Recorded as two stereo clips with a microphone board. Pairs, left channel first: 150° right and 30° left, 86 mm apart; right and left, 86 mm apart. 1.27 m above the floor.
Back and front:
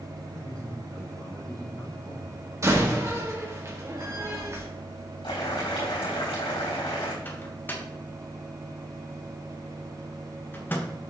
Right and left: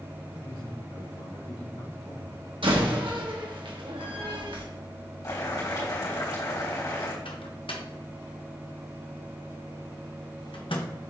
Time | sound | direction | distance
0.3 | a man speaking | 70° right | 2.5 m
2.6 | a door slam | 85° left | 1.4 m
5.2 | boiling | 135° right | 3 m
7.2 | a microwave | 85° right | 1.1 m